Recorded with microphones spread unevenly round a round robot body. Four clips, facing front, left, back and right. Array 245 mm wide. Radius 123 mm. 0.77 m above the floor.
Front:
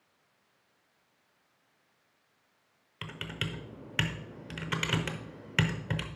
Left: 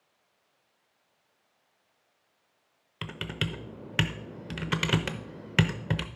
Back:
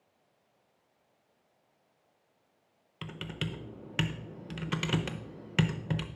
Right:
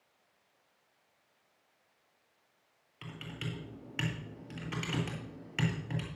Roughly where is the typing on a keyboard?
Left.